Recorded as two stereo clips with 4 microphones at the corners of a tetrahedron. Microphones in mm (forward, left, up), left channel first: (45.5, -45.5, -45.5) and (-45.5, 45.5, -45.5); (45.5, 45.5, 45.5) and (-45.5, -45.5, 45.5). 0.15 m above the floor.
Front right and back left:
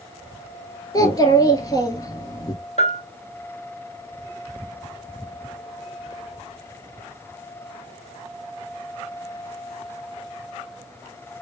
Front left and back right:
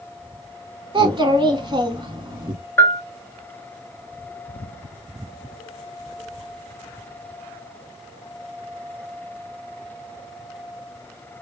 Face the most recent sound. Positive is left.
turn(degrees=-25)